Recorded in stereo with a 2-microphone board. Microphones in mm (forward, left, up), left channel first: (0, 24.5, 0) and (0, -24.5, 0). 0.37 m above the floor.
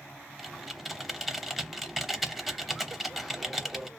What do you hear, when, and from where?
0.4 s typing on a keyboard: 5° right (ahead or behind), 0.5 m